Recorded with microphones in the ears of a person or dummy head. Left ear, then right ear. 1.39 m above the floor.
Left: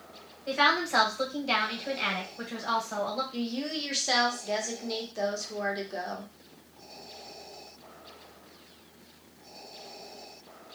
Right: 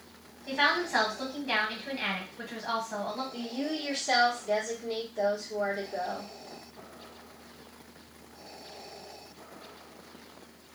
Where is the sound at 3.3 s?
35° left (ahead or behind), 1.0 m.